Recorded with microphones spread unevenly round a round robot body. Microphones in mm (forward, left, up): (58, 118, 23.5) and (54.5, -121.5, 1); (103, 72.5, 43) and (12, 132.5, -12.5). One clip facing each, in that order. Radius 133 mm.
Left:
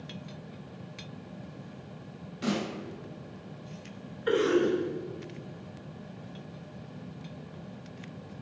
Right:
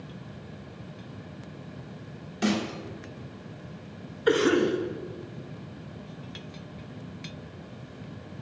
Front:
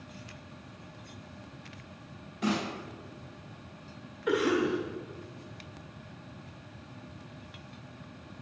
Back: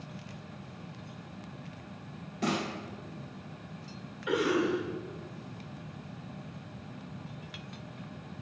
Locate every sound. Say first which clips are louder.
2.4 s a snare drum: right 4 dB, front 1 dB; 130° right, 2 m
4.3 s a cough: right 2 dB, front 1 dB; 110° right, 0.9 m